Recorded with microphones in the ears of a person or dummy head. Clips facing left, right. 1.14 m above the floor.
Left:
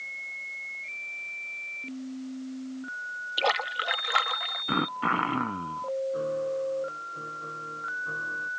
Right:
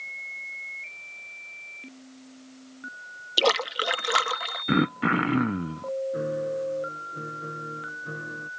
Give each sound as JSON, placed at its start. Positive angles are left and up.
{"t": 3.4, "sound": "a splash", "side_deg": -60}
{"t": 4.7, "sound": "throat clearing", "side_deg": -25}
{"t": 6.1, "sound": "a piano", "side_deg": -30}